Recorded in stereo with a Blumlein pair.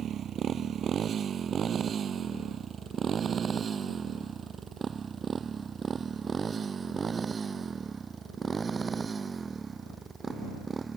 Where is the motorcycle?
25° right; by 11.0 s 15° right.